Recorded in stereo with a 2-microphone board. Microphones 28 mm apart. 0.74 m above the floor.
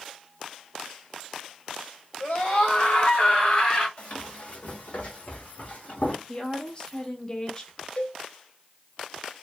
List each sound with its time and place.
2.2 s a scream: 70° left (ahead or behind), 2 m; by 3.9 s 35° left (ahead or behind), 1.7 m
4.0 s running footsteps: 40° left (ahead or behind), 2 m; by 6.2 s 70° left (ahead or behind), 2 m
6.3 s a woman speaking: 25° left (ahead or behind), 0.8 m
8.0 s a cowbell: 35° left (ahead or behind), 0.5 m